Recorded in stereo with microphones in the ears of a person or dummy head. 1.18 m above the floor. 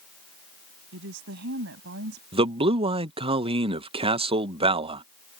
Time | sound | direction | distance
0.9 | a woman speaking | 75° right (ahead or behind) | ?
2.3 | a man speaking | 35° right (ahead or behind) | ?